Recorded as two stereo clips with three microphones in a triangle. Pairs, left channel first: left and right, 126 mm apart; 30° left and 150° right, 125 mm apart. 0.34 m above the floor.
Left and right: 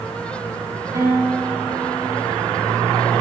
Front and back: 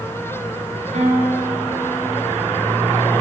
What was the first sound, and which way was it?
A guitar, 150° right.